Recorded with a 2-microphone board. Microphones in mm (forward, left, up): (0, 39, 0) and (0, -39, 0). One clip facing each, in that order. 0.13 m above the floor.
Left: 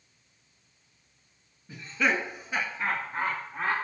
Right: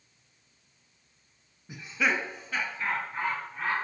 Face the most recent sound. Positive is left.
turn(degrees=30)  # may be behind; listen again after turning